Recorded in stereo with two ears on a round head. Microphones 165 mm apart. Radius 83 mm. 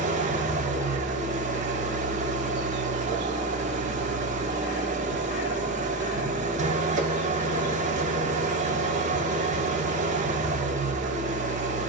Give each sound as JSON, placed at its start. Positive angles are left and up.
{"t": 0.0, "sound": "an engine running", "side_deg": -40, "distance_m": 1.3}